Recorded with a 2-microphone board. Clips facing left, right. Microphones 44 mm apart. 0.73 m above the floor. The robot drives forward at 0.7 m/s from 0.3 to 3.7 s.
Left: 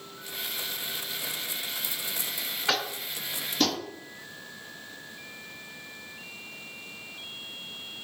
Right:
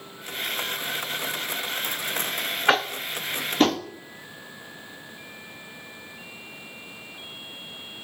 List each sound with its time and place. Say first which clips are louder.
2.7 s tapping: right 7 dB; 35° right (ahead or behind), 0.8 m